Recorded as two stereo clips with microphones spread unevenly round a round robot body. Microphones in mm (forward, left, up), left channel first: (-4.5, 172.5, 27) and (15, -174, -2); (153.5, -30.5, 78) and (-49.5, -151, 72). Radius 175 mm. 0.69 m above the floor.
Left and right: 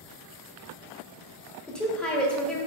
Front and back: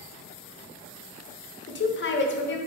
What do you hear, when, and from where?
1.7 s a woman speaking: 5° left, 0.9 m